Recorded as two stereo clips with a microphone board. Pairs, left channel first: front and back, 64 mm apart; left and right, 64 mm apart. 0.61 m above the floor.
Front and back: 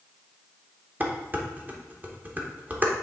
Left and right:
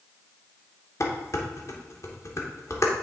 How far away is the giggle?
I don't hear a giggle.